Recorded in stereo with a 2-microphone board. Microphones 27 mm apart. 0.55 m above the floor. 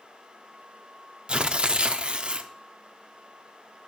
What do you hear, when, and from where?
1.3 s tearing paper: 40° right (ahead or behind), 0.6 m